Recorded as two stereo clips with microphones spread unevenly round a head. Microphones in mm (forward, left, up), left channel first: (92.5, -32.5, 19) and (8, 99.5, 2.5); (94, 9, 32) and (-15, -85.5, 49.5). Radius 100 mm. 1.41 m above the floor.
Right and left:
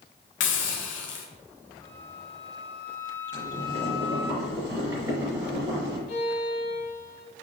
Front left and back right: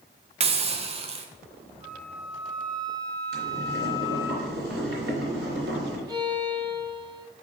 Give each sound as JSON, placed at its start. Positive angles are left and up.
{"t": 0.4, "sound": "a hiss", "azimuth_deg": -90, "distance_m": 1.1}
{"t": 1.8, "sound": "a flute", "azimuth_deg": 15, "distance_m": 1.4}
{"t": 3.3, "sound": "boiling", "azimuth_deg": -155, "distance_m": 3.5}
{"t": 6.1, "sound": "a violin", "azimuth_deg": -85, "distance_m": 2.0}